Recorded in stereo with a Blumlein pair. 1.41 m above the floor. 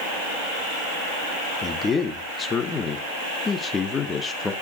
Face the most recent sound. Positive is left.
turn(degrees=15)